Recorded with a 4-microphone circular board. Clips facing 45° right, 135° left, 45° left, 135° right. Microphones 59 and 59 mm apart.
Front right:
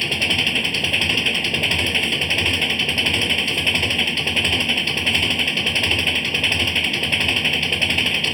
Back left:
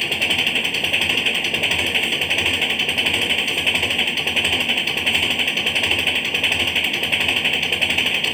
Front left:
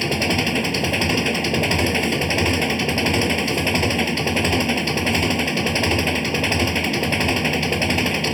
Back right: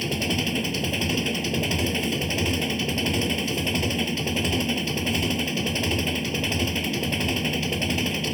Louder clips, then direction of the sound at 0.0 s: Even, front left 5 dB; 50° left.